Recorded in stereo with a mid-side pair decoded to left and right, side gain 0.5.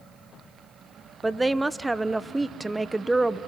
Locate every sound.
1.2 s a woman speaking: 20° right, 1.1 m